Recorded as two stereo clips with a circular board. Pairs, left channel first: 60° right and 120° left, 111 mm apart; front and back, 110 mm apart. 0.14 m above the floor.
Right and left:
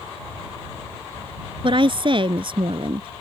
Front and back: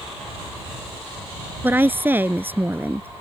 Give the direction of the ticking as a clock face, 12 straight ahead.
I don't hear ticking.